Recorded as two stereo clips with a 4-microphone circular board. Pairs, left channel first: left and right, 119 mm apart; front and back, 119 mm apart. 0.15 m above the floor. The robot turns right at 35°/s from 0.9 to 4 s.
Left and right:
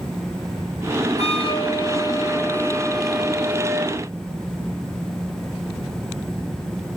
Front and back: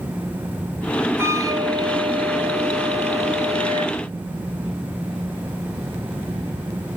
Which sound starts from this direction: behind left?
A flute, at 1.2 s.